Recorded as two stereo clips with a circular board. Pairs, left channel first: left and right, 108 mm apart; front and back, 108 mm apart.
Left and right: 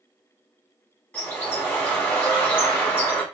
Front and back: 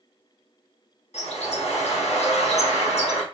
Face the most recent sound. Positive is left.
turn(degrees=15)